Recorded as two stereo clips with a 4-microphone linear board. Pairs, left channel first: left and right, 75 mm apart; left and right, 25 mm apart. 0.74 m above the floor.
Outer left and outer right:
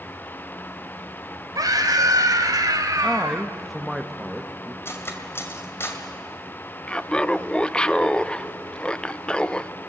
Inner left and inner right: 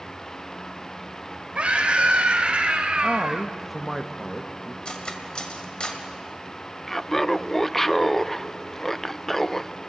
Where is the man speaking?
Centre (ahead or behind), 1.1 m.